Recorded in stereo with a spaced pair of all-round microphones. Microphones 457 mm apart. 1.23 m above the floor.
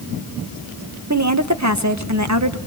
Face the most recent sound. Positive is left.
turn(degrees=-35)  # may be behind; listen again after turning